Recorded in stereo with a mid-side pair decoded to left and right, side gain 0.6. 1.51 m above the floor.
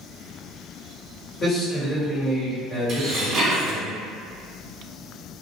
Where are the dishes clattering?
45° right, 1.5 m.